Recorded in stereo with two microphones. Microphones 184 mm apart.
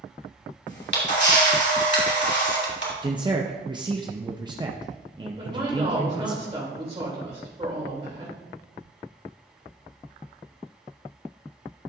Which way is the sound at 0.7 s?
65° left (ahead or behind).